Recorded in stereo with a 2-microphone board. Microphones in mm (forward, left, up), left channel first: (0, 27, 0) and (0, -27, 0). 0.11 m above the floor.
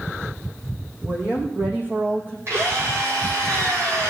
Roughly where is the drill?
Right.